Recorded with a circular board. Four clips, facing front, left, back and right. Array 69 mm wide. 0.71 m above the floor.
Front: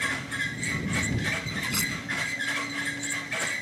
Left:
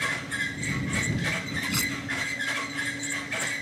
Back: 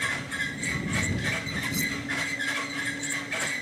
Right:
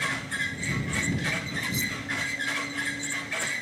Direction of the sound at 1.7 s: 55° left.